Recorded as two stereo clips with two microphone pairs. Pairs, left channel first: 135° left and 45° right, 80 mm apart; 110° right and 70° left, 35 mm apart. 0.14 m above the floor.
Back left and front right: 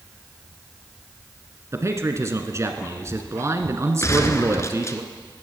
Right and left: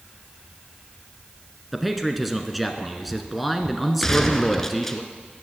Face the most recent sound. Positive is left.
turn(degrees=175)